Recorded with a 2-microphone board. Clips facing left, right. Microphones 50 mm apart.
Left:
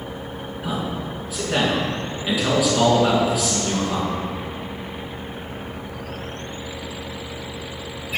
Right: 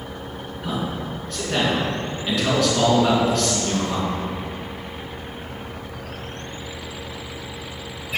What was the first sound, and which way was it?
A man speaking, 5° left (ahead or behind).